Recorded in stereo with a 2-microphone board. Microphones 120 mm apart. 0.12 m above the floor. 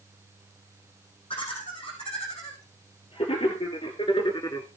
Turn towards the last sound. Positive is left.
turn(degrees=30)  # may be behind; listen again after turning